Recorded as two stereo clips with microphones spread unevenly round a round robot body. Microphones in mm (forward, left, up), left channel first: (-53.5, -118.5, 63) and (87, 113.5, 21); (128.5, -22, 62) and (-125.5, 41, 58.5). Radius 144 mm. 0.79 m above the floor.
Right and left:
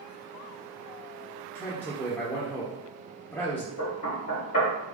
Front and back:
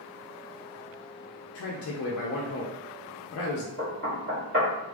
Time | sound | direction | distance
1.6 | a man speaking | 35° right | 0.6 m
3.8 | knocking | 155° right | 1.8 m